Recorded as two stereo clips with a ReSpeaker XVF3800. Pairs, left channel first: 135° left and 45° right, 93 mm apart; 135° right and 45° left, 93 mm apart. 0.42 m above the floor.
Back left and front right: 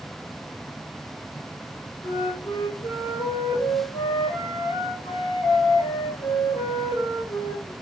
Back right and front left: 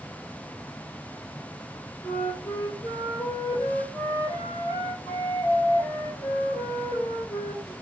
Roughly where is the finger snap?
No finger snap in this recording.